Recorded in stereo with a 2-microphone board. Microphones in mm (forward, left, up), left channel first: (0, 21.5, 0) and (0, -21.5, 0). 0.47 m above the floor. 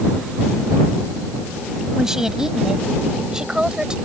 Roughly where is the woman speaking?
Centre.